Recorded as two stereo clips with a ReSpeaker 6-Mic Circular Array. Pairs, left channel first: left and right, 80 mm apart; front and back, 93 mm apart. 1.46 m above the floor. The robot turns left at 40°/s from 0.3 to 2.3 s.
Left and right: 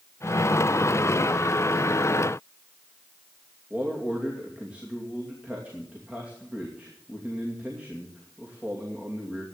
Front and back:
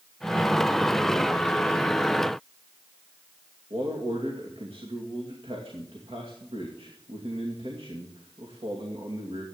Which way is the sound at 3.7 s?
165° right.